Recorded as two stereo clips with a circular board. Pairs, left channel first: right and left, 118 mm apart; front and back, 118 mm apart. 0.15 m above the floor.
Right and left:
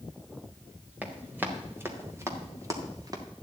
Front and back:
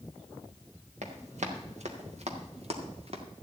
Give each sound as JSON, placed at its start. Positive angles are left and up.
{"t": 1.0, "sound": "running footsteps", "azimuth_deg": 165, "distance_m": 3.0}